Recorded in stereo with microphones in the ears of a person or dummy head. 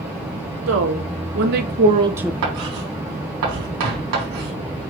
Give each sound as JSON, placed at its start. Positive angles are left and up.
{"t": 0.7, "sound": "a woman speaking", "side_deg": -75, "distance_m": 2.5}
{"t": 2.4, "sound": "writing", "side_deg": -80, "distance_m": 4.0}